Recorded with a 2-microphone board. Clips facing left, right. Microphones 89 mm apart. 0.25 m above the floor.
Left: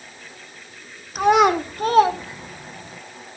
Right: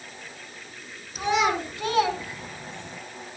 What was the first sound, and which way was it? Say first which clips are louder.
A child speaking: left 8 dB; 65° left (ahead or behind).